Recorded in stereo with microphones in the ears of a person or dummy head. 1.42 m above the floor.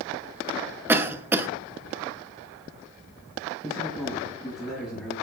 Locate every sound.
0.9 s a cough: 10° right (ahead or behind), 0.7 m
3.6 s a man speaking: 5° right (ahead or behind), 5 m